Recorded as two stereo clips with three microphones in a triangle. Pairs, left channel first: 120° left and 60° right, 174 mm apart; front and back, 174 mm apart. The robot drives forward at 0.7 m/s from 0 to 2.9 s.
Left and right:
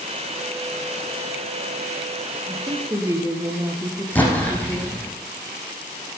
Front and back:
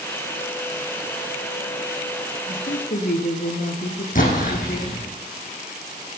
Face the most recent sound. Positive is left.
turn(degrees=40)